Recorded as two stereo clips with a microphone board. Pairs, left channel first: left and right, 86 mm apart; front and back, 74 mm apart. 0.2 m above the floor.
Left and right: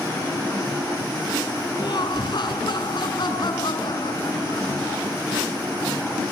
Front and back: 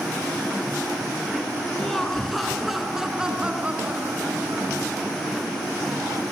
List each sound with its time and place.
1.8 s laughter: 80° left, 2 m; by 4.9 s 125° left, 2.5 m